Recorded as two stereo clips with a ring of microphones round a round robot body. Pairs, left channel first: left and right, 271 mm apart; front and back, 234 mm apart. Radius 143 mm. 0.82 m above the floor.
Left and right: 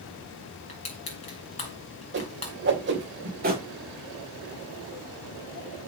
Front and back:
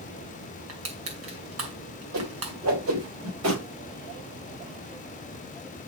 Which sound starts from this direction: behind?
Crushing, at 0.7 s.